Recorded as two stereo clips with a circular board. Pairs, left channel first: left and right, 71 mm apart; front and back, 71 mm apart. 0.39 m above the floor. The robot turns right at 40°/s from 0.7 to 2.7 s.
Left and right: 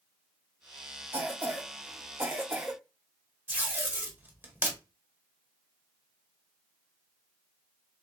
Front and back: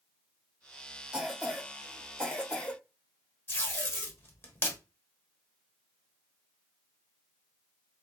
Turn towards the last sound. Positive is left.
turn(degrees=-40)